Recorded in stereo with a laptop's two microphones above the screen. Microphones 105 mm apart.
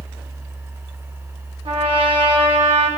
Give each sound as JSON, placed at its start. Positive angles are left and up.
{"t": 0.0, "sound": "a fan", "side_deg": -25, "distance_m": 1.1}
{"t": 1.6, "sound": "a trumpet", "side_deg": -65, "distance_m": 2.5}